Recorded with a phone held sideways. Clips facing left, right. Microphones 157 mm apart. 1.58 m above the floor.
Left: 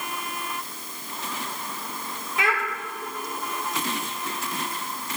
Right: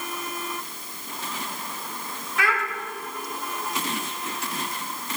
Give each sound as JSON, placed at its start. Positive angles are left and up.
{"t": 2.4, "sound": "a child speaking", "side_deg": 20, "distance_m": 0.5}